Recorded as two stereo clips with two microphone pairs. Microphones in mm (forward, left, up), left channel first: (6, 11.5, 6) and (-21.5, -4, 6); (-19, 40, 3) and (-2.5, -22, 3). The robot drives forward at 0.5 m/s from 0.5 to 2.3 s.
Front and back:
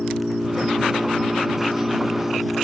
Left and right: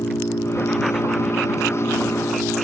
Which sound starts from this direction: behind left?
An engine running, at 0.0 s.